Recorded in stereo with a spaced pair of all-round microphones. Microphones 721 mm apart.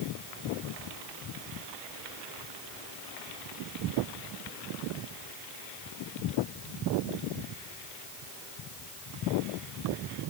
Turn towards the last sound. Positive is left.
No sound to turn to.